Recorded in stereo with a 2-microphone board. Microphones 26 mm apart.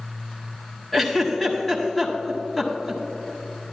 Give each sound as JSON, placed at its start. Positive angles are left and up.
{"t": 0.9, "sound": "a giggle", "side_deg": 0, "distance_m": 1.1}